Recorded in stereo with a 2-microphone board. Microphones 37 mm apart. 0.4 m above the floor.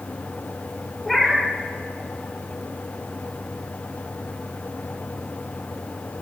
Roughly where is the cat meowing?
Centre.